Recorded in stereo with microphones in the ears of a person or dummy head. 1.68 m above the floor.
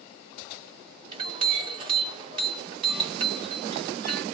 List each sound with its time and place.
1.1 s a clink: 25° right (ahead or behind), 2.5 m